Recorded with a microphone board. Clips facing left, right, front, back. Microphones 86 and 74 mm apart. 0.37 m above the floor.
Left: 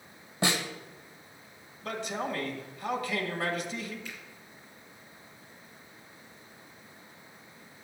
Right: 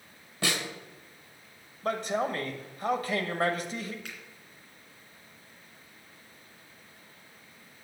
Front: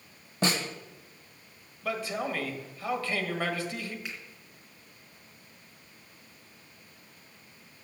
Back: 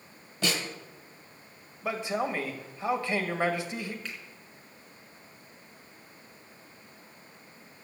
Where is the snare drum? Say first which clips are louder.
Left 2 dB, front 2 dB; 35° left, 1.8 m.